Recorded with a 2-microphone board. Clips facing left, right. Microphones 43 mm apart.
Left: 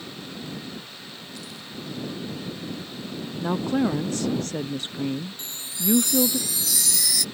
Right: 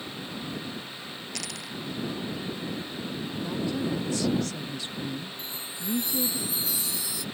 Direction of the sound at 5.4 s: 85° left.